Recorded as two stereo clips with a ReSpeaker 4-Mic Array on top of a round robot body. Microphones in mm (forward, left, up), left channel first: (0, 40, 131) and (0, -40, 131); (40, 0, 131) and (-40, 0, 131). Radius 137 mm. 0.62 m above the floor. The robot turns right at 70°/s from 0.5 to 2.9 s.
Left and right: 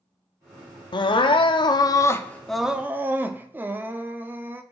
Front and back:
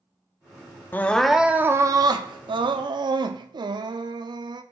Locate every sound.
0.9 s crying: 65° left, 0.6 m; by 4.6 s 155° right, 0.6 m